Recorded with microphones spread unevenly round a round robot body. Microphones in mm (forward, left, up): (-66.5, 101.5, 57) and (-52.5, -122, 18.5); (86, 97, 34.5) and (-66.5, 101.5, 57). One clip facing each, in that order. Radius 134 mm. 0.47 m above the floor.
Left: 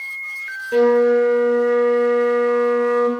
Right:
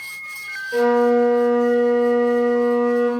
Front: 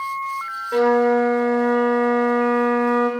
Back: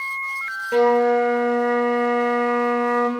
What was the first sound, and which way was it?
A flute, 105° left.